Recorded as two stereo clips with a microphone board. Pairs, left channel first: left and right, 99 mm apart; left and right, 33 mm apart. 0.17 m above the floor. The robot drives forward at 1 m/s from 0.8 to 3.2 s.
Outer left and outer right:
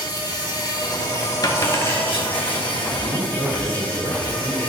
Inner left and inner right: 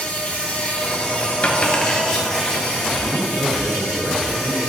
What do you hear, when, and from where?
0.0 s an insect: 35° left (ahead or behind), 1.5 m; by 4.7 s 15° left (ahead or behind), 3.5 m
1.4 s a dropped coin: 40° left (ahead or behind), 0.9 m; by 2.5 s 20° left (ahead or behind), 1.8 m
3.0 s a man speaking: 40° right (ahead or behind), 2 m; by 4.6 s 45° right (ahead or behind), 1.9 m